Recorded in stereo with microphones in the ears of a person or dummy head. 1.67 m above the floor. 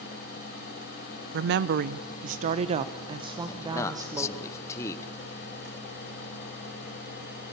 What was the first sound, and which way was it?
A woman speaking, 65° right (ahead or behind).